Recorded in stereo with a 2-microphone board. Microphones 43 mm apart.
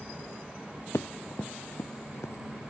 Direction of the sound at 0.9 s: 85° left.